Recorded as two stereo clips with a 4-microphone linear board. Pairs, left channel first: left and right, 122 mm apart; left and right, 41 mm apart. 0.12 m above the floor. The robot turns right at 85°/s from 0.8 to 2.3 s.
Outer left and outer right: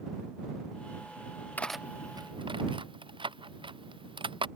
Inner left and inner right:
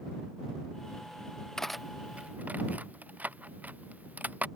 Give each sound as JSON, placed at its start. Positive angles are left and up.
{"t": 1.6, "sound": "cutlery clinking", "side_deg": 15}